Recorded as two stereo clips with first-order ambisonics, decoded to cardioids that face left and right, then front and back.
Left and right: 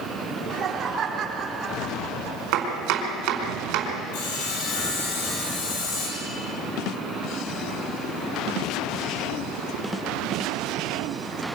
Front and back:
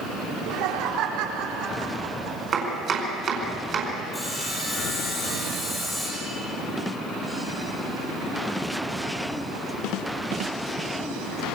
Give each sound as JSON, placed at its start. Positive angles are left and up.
{"t": 0.3, "sound": "laughter", "azimuth_deg": -160, "distance_m": 4.0}
{"t": 2.5, "sound": "chopping", "azimuth_deg": -115, "distance_m": 4.5}
{"t": 4.1, "sound": "sawing", "azimuth_deg": 80, "distance_m": 7.5}